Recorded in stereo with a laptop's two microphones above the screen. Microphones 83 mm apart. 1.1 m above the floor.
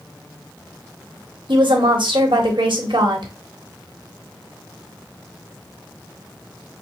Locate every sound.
1.5 s a woman speaking: 75° right (ahead or behind), 1.3 m